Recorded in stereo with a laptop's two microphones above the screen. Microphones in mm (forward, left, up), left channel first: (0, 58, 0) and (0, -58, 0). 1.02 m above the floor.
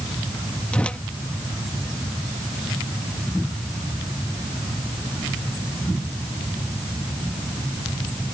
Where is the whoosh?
10° left (ahead or behind).